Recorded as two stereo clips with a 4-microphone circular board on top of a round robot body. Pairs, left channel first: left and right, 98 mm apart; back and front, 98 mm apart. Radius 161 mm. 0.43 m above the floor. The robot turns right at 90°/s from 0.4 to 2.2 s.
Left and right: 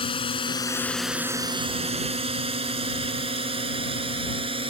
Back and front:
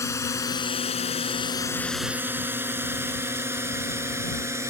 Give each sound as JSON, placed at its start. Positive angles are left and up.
{"t": 0.0, "sound": "a drone", "azimuth_deg": 120}